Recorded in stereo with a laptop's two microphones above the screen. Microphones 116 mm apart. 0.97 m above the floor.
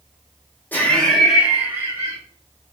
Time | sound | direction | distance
0.7 | laughter | 15° left (ahead or behind) | 0.8 m